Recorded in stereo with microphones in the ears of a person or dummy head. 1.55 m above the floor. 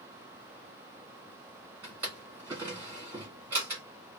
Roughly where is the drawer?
Centre.